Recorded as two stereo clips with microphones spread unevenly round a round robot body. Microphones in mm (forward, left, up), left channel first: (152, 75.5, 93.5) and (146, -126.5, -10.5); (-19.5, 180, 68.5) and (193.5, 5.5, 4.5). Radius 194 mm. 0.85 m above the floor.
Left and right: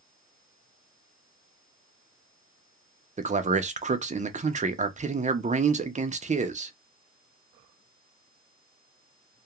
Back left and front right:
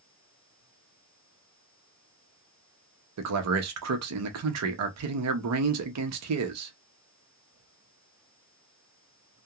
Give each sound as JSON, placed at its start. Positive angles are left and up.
{"t": 3.2, "sound": "a man speaking", "azimuth_deg": -50, "distance_m": 0.7}